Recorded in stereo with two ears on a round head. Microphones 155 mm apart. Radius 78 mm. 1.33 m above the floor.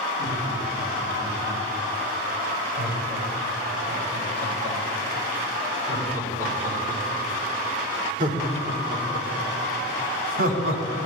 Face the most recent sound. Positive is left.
turn(degrees=-60)  # may be behind; listen again after turning